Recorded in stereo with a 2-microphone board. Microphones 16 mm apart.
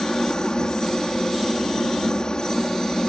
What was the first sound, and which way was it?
A helicopter, 50° left (ahead or behind).